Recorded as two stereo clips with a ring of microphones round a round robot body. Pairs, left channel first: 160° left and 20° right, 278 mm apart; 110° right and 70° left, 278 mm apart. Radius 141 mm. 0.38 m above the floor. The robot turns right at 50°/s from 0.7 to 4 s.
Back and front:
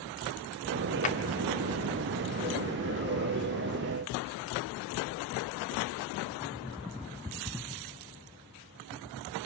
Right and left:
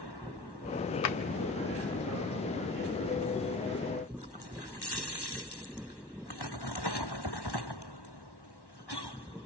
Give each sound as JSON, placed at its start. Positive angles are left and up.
{"t": 1.0, "sound": "a drawer", "azimuth_deg": -140, "distance_m": 1.0}